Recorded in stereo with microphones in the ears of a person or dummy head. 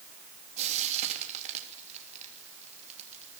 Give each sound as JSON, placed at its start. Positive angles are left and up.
{"t": 0.6, "sound": "frying", "side_deg": -35, "distance_m": 3.0}